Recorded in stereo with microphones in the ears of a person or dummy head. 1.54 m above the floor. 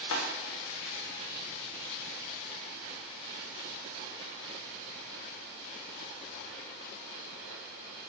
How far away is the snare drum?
About 1.2 m.